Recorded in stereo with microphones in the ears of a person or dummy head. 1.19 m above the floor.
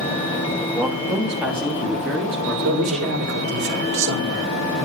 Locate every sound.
0.7 s a man speaking: 10° right (ahead or behind), 2.5 m; by 3.3 s 5° right (ahead or behind), 4 m
2.6 s a man speaking: 75° right (ahead or behind), 3.5 m